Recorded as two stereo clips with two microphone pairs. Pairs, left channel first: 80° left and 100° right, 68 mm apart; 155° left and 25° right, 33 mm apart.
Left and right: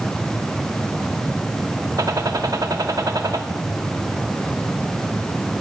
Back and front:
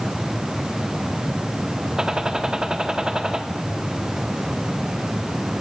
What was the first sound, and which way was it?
A gunshot, 90° right.